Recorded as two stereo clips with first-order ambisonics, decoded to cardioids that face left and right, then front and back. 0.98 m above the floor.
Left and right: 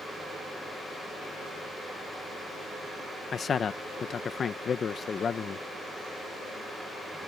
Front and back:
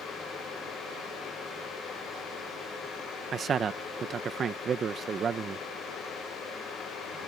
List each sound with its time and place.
3.3 s a man speaking: 135° left